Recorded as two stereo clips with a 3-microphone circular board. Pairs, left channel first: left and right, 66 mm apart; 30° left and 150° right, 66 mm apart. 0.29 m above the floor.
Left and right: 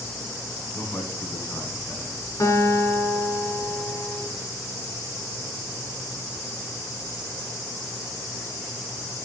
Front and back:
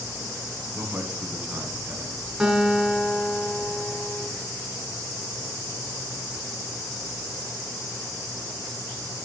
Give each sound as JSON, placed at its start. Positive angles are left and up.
{"t": 0.8, "sound": "a man speaking", "azimuth_deg": 135, "distance_m": 2.5}
{"t": 2.4, "sound": "a guitar", "azimuth_deg": 125, "distance_m": 3.0}